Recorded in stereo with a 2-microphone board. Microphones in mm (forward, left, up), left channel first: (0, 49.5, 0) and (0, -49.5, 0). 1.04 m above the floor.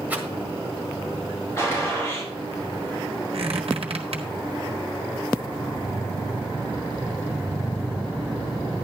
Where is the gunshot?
25° left (ahead or behind), 5.5 m.